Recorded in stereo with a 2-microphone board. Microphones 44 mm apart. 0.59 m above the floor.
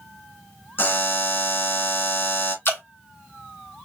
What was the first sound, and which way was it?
A buzzer, 55° left (ahead or behind).